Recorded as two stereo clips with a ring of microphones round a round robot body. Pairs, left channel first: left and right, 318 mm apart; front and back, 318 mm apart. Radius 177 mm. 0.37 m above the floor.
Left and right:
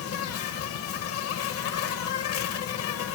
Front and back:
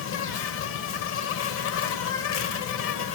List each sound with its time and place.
0.0 s an insect: 45° left, 0.8 m